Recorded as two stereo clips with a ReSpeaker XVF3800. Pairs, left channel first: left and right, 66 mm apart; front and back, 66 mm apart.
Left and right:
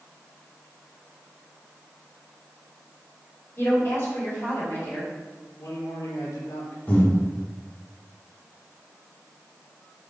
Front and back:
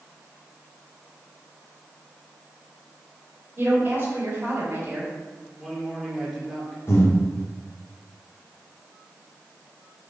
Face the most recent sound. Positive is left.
turn(degrees=30)